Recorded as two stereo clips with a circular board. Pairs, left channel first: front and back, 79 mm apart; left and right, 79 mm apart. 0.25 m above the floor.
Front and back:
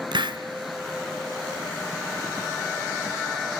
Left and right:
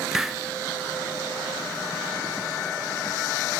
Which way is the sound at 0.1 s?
175° right.